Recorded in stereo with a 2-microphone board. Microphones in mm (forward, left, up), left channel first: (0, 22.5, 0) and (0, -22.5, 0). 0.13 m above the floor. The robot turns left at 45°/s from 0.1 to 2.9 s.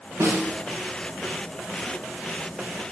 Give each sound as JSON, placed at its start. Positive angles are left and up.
{"t": 0.2, "sound": "a snare drum", "side_deg": -85, "distance_m": 7.5}